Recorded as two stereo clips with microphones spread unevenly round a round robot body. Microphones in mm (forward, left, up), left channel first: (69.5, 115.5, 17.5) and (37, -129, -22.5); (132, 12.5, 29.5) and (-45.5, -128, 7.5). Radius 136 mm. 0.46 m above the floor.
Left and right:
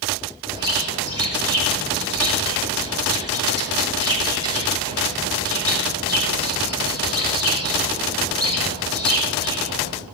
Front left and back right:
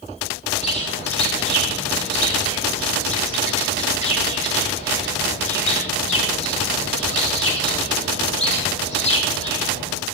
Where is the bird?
20° right, 8.5 m.